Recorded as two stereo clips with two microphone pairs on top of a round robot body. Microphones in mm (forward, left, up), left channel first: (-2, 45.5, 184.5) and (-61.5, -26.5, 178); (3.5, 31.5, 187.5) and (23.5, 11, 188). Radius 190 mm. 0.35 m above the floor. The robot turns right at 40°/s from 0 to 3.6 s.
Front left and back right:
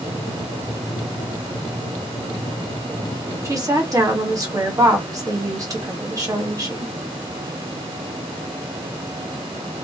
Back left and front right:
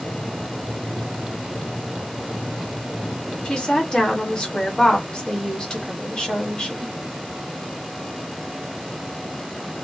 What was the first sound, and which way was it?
A woman speaking, 175° right.